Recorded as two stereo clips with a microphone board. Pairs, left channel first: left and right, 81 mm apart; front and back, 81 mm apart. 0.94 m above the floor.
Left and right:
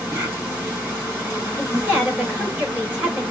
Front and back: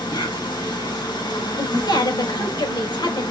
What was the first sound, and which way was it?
An insect, 20° right.